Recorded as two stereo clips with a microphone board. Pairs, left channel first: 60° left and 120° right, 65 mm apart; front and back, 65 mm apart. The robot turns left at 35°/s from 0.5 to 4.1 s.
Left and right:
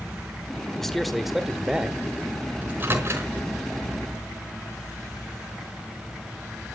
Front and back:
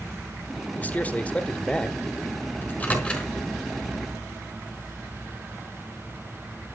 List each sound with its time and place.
0.8 s a man speaking: 15° right, 1.6 m; by 2.0 s 60° right, 1.6 m
2.6 s a microwave: 55° right, 4.5 m; by 3.3 s 80° right, 4.5 m